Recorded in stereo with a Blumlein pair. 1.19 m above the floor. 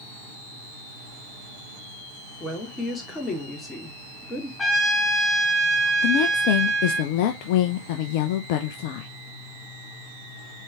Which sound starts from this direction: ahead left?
A woman speaking, at 6.0 s.